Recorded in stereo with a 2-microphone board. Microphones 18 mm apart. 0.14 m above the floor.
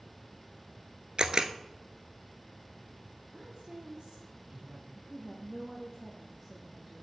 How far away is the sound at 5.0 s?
About 4.5 m.